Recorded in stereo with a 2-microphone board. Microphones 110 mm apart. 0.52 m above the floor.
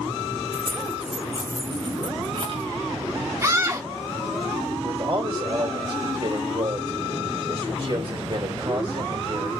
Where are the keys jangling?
20° left (ahead or behind), 0.9 m; by 2.7 s 55° right (ahead or behind), 1.4 m.